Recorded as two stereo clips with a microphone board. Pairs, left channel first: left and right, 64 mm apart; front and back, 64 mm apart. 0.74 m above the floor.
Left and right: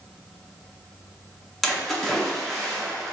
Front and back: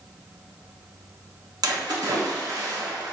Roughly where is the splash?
Behind.